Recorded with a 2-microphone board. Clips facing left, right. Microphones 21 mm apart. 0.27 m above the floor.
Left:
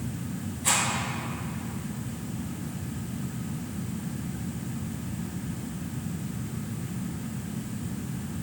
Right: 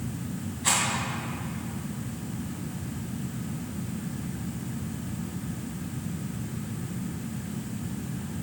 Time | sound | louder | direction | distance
0.6 | a rattle | even | 25° right (ahead or behind) | 2 m